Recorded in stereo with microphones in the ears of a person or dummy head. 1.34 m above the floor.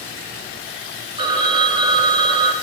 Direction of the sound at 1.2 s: 25° right (ahead or behind).